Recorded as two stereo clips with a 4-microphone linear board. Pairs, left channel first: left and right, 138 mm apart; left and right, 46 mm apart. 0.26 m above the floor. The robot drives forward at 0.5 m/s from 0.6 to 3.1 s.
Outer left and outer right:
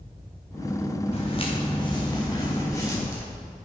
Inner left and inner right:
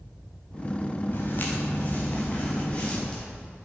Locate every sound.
1.1 s footsteps: 45° left (ahead or behind), 3.5 m; by 3.2 s 20° left (ahead or behind), 5 m